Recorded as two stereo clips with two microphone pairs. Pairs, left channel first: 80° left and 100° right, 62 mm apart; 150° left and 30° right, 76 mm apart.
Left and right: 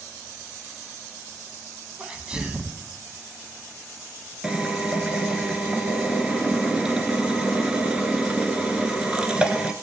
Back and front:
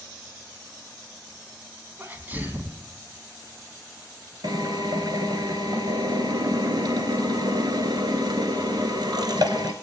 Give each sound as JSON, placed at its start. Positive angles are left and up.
{"t": 2.0, "sound": "a sneeze", "azimuth_deg": -40, "distance_m": 1.1}
{"t": 4.4, "sound": "a drill", "azimuth_deg": -25, "distance_m": 1.0}